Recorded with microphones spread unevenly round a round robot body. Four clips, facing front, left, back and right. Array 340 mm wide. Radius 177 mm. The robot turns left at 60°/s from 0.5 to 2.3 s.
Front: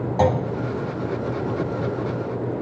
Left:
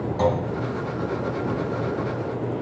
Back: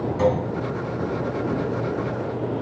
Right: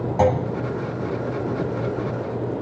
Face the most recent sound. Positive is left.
turn(degrees=-175)